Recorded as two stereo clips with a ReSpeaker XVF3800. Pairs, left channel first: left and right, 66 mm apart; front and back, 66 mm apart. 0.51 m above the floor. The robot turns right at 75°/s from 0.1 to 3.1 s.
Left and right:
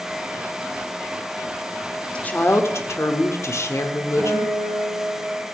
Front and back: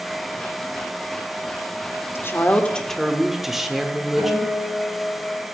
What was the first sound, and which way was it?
A woman speaking, 25° left.